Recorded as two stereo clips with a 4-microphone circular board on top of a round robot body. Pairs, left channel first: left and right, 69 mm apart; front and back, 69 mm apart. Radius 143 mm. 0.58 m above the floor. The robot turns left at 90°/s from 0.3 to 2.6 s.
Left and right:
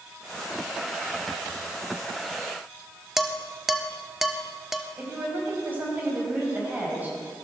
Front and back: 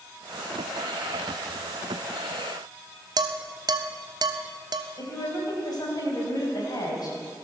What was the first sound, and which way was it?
Dishes clattering, 175° right.